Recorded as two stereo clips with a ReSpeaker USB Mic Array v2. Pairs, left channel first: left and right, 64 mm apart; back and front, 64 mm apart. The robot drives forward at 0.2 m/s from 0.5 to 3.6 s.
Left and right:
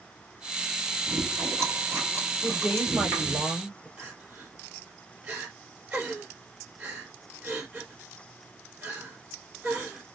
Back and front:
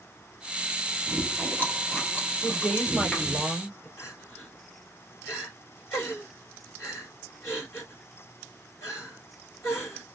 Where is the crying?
150° right, 2 m.